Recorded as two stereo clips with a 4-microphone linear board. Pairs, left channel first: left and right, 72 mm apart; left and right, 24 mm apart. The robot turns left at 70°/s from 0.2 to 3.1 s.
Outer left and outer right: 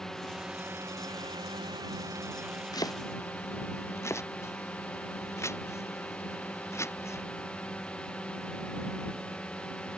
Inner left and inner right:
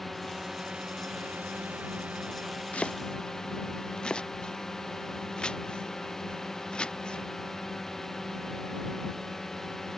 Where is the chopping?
65° left (ahead or behind); by 7.2 s 40° left (ahead or behind).